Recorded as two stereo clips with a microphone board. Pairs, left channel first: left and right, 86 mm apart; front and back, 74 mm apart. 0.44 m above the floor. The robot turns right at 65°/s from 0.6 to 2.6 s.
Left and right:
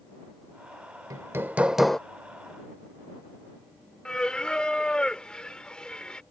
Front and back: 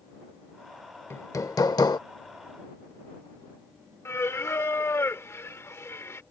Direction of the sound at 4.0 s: 15° left.